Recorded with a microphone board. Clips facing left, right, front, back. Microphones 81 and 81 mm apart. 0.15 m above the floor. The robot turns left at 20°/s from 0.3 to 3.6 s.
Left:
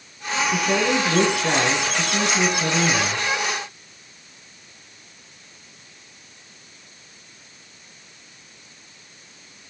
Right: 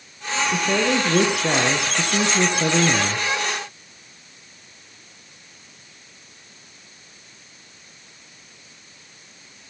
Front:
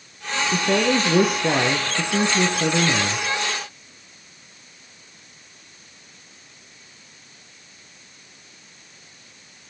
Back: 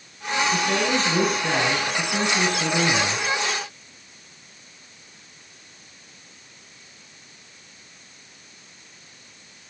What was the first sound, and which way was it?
A man speaking, 10° right.